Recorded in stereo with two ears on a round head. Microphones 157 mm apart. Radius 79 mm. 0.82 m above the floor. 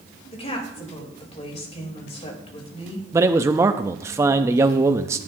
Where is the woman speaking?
35° left (ahead or behind), 3.5 m.